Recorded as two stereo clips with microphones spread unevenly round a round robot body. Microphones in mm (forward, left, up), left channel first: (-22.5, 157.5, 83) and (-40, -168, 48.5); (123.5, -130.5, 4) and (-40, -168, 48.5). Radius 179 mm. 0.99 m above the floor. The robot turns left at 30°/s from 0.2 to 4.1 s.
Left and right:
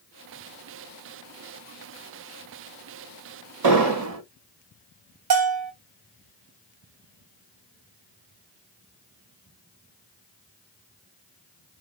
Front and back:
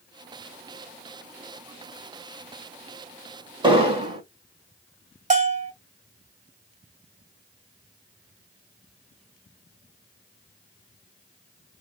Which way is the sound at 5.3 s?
130° right.